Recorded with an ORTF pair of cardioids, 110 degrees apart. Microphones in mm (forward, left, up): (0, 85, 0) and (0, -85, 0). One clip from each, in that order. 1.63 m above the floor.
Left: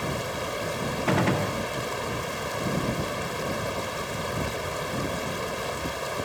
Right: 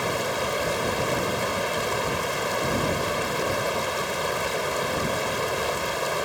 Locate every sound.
0.0 s running water: 30° right
1.1 s a gunshot: 60° left